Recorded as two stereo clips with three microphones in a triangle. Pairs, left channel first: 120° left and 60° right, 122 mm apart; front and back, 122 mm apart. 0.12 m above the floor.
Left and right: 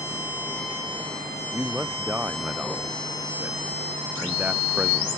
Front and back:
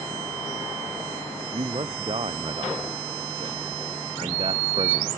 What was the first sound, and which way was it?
A man speaking, 140° right.